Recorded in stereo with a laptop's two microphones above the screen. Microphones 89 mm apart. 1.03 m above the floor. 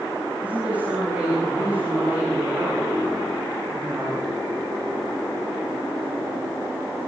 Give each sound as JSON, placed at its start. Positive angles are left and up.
{"t": 0.4, "sound": "a woman speaking", "side_deg": -15, "distance_m": 9.5}